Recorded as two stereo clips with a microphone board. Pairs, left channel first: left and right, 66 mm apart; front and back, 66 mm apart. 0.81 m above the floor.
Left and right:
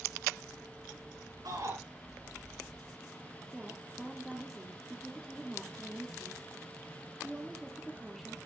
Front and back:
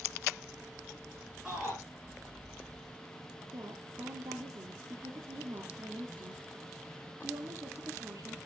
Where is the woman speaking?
175° right, 1.7 m.